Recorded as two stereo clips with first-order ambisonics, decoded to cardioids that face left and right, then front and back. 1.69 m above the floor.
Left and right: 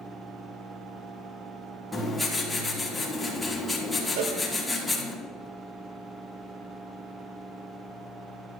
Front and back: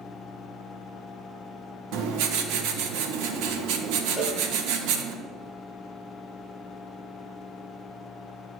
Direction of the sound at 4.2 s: 90° right.